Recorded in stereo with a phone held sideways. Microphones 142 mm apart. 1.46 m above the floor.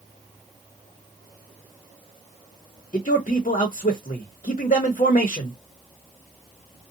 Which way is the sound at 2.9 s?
65° left (ahead or behind).